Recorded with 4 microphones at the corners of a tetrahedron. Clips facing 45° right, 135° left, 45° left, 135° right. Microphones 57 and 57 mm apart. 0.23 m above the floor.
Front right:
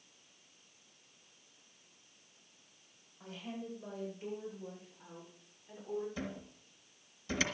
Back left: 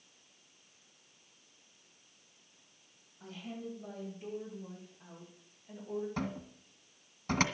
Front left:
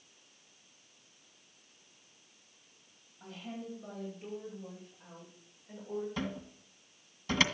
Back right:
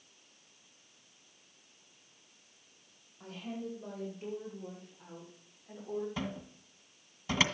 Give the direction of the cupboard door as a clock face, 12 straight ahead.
7 o'clock.